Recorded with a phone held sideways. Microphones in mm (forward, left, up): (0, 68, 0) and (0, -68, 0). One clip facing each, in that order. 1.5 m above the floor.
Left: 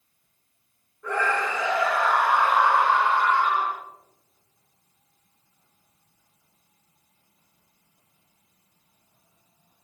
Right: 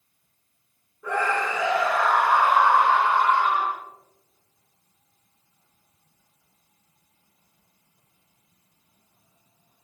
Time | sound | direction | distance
1.0 | a scream | 10° right (ahead or behind) | 4.5 m